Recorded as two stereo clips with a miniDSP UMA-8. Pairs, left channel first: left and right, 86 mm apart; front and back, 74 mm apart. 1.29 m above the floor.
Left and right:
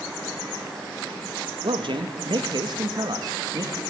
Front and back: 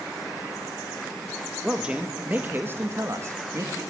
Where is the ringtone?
No ringtone in this recording.